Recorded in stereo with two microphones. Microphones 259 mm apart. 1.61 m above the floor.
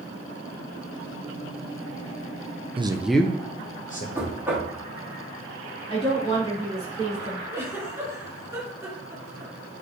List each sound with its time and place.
2.8 s a man speaking: 20° right (ahead or behind), 0.6 m; by 4.0 s 35° left (ahead or behind), 1.2 m
4.2 s knocking: 10° right (ahead or behind), 2.5 m
5.9 s a woman speaking: 20° left (ahead or behind), 4.5 m
7.5 s a giggle: 10° right (ahead or behind), 2.5 m